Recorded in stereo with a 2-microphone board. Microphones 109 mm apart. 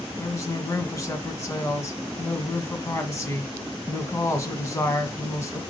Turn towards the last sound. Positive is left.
turn(degrees=25)  # may be behind; listen again after turning